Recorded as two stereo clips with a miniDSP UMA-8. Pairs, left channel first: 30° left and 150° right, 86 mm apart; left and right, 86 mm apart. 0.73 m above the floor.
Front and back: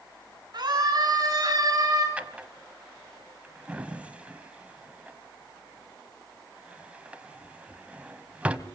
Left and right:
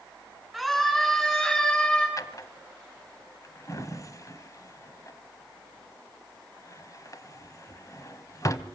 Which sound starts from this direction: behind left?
A drawer, at 2.2 s.